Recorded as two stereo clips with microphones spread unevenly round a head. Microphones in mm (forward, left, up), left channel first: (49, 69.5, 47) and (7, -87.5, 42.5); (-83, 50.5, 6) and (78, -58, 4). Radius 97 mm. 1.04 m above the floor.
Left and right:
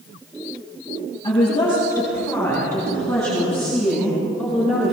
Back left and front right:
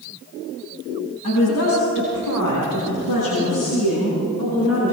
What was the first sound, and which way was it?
A woman speaking, 140° left.